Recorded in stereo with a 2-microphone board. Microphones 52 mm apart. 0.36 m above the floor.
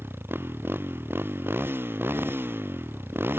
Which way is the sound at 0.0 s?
45° right (ahead or behind).